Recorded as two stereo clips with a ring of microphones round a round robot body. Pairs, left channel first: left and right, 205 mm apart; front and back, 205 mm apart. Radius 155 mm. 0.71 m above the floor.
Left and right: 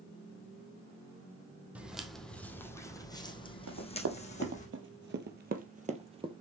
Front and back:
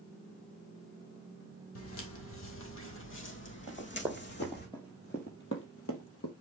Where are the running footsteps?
105° right, 1.8 m; by 6.3 s 25° right, 1.6 m.